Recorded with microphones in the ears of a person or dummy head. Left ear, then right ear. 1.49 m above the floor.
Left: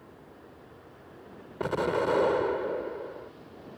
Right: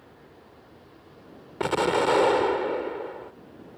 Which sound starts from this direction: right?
An explosion, at 1.6 s.